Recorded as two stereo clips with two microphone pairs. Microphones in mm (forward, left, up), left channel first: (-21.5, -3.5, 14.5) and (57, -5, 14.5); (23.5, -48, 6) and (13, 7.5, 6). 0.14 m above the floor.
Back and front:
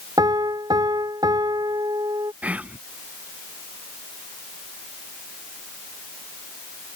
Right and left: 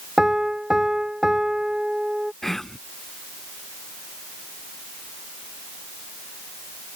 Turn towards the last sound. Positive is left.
turn(degrees=-10)